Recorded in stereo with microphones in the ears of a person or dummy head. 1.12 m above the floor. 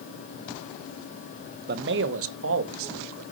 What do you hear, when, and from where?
1.7 s a man speaking: 50° right (ahead or behind), 0.9 m; by 3.2 s 75° right (ahead or behind), 2.5 m